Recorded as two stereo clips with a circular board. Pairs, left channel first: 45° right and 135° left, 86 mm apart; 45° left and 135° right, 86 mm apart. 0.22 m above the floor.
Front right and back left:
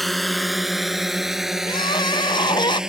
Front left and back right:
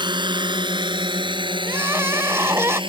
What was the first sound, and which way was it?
A drone, 135° right.